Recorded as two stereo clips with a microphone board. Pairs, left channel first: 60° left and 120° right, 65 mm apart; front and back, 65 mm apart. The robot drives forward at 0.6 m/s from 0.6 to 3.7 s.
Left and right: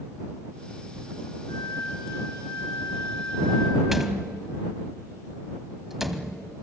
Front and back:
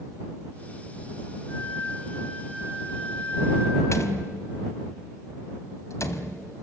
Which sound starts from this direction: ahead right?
A door slam, at 3.9 s.